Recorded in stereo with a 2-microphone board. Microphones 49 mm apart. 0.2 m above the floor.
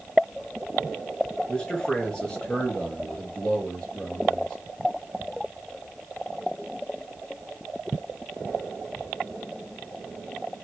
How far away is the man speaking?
About 3 m.